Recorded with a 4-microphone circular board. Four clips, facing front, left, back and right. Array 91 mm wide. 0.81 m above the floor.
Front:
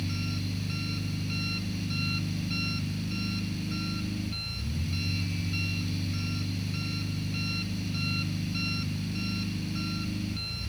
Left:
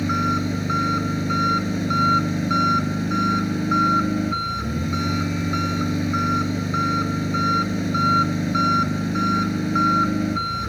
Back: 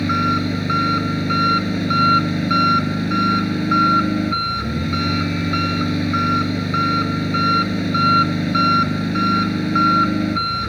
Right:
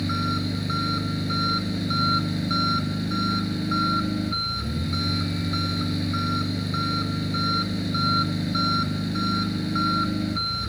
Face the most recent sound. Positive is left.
turn(degrees=160)